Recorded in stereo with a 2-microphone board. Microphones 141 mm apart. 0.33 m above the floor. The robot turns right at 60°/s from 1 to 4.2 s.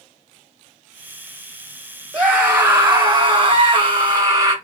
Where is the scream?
175° left, 1.5 m; by 4.5 s 60° right, 1.5 m.